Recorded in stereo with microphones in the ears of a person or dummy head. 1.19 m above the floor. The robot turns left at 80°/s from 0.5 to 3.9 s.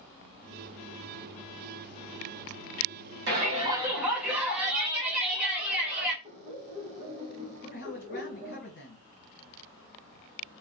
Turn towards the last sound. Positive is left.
turn(degrees=50)  # may be behind; listen again after turning